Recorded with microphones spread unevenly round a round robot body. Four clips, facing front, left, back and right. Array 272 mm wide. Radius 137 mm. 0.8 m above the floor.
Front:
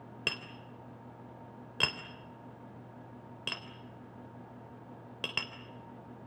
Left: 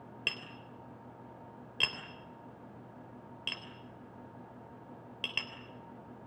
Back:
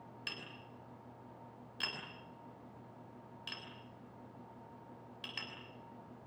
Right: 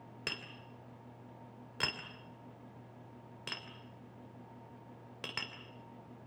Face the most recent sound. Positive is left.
turn(degrees=-5)